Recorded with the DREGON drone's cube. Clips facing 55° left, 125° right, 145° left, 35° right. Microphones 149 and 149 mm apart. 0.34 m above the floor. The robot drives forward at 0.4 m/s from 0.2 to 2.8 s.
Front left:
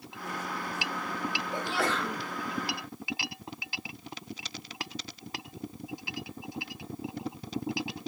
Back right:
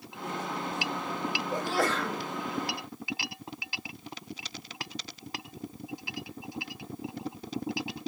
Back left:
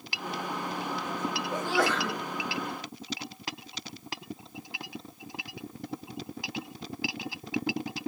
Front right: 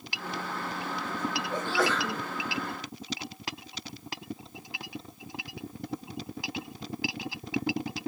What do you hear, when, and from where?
1.5 s a sneeze: 140° right, 1.7 m; by 2.2 s 145° right, 1.9 m